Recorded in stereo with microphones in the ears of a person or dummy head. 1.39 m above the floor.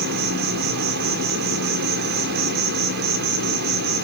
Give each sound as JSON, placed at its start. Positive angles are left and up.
{"t": 0.0, "sound": "an insect", "side_deg": -55, "distance_m": 1.8}